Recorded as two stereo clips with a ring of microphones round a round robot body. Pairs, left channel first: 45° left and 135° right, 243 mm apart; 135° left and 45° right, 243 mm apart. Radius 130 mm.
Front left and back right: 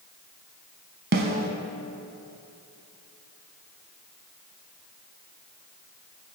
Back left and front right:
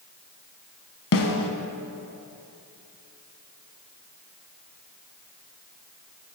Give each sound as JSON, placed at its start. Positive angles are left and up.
{"t": 1.1, "sound": "a snare drum", "azimuth_deg": 175, "distance_m": 0.9}